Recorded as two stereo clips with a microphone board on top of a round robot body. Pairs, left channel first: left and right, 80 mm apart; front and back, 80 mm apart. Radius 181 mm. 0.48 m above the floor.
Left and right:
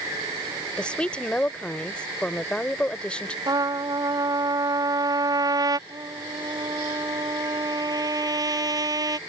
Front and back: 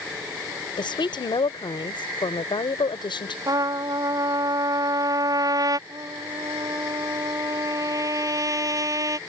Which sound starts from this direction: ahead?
A woman speaking, at 0.8 s.